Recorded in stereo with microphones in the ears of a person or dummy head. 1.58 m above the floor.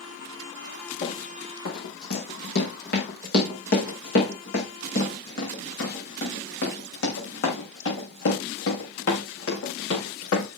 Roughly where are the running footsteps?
Left.